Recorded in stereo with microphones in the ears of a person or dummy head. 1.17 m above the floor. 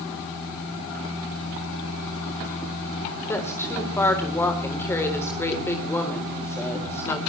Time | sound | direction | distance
3.3 | a woman speaking | 15° left (ahead or behind) | 3.5 m